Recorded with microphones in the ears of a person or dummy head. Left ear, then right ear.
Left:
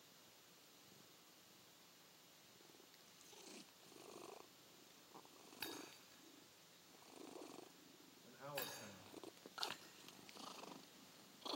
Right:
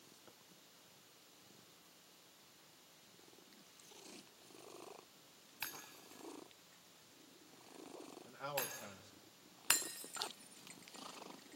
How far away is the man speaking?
About 2 m.